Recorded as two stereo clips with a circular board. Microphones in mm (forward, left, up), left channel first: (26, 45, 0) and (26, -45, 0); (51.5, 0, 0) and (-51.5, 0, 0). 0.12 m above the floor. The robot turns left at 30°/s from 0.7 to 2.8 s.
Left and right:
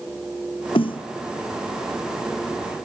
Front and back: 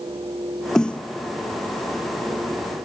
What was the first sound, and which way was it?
A snare drum, 85° left.